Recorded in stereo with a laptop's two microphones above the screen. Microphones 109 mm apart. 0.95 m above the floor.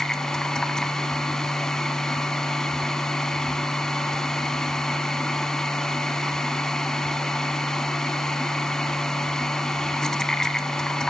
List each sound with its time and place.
0.0 s a machine running: 5° left (ahead or behind), 1.1 m